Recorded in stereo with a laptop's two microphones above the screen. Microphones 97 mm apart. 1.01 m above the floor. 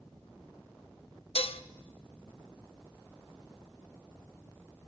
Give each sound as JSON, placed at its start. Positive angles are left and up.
{"t": 1.4, "sound": "dishes clattering", "side_deg": 75, "distance_m": 0.9}